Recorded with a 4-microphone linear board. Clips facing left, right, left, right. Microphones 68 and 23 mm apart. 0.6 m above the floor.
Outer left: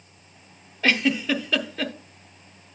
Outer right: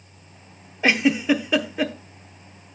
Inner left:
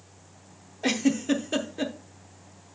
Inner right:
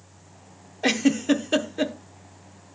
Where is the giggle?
15° right (ahead or behind), 0.7 m.